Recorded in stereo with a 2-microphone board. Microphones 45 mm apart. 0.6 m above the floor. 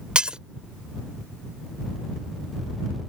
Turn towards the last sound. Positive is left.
turn(degrees=-20)  # may be behind; listen again after turning